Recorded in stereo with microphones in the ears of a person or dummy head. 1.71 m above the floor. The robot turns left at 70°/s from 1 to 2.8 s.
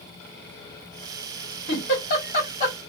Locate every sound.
1.7 s a giggle: 55° left (ahead or behind), 2 m; by 2.8 s 30° left (ahead or behind), 2 m